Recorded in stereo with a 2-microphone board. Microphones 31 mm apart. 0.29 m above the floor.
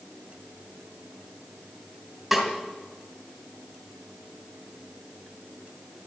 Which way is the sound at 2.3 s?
5° right (ahead or behind).